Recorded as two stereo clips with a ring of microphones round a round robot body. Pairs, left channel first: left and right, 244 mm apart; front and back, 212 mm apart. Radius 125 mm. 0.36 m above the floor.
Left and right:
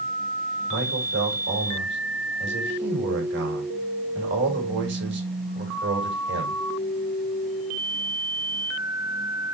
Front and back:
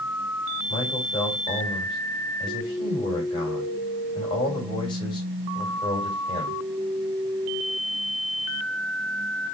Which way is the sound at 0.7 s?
65° right.